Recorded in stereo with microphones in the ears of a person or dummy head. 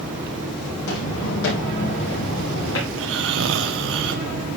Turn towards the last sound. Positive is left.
turn(degrees=-65)  # may be behind; listen again after turning